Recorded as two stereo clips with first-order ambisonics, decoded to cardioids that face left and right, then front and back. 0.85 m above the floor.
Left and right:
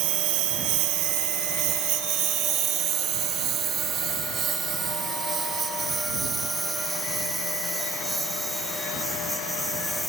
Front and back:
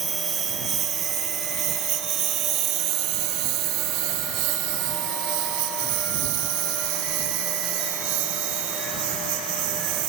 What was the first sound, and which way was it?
A lawn mower, 105° right.